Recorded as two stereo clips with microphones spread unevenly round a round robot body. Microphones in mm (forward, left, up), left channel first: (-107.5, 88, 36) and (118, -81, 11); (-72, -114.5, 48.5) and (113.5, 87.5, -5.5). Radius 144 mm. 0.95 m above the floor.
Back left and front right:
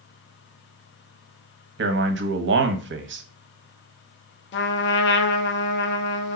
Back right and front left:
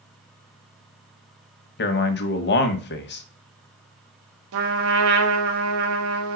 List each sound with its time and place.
1.8 s a man speaking: 80° right, 1.1 m
4.5 s a trumpet: 90° left, 1.0 m